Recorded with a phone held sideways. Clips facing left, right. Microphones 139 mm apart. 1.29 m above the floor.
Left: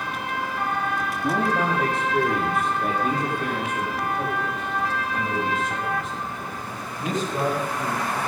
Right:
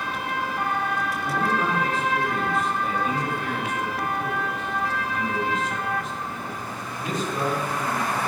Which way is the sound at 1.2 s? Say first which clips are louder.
Left 3 dB; 85° left.